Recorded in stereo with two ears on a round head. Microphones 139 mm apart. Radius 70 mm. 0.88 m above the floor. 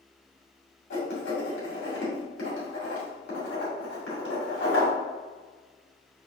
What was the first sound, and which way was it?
Writing, 75° left (ahead or behind).